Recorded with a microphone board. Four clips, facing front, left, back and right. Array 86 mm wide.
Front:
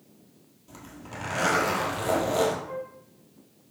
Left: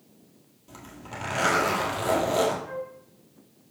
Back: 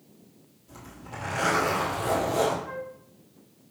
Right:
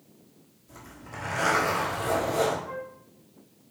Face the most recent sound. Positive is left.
turn(degrees=170)